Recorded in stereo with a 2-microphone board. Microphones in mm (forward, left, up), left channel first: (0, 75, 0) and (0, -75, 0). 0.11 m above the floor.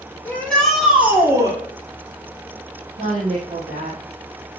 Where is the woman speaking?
50° right (ahead or behind), 4 m.